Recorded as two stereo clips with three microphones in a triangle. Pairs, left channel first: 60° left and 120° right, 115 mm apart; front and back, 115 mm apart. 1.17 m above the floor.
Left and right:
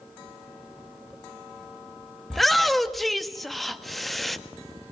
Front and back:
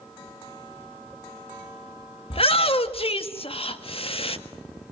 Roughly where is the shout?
Ahead right.